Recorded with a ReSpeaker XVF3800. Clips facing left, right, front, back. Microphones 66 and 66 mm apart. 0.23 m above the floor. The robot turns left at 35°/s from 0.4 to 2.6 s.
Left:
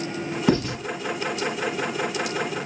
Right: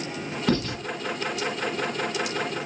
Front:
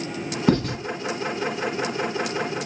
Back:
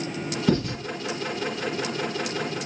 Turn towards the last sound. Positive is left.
turn(degrees=-50)